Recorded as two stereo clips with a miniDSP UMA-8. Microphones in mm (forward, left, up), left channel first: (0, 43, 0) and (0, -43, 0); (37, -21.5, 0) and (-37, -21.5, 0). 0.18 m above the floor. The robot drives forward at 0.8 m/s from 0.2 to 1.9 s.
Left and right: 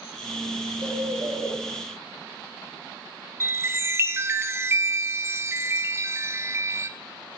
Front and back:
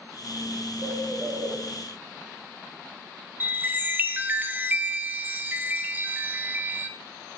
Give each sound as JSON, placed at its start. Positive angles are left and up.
{"t": 0.8, "sound": "a bird", "azimuth_deg": -125, "distance_m": 4.0}
{"t": 3.4, "sound": "a chime", "azimuth_deg": -130, "distance_m": 0.8}